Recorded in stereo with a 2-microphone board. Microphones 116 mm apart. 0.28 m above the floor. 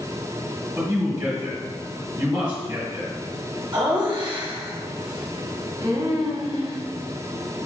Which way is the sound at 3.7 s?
25° right (ahead or behind).